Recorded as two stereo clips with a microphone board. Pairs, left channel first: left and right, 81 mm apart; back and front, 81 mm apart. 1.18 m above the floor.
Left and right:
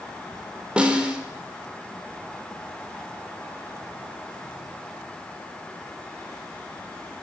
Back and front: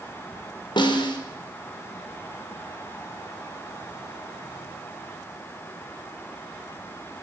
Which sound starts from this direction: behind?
A snare drum, at 0.8 s.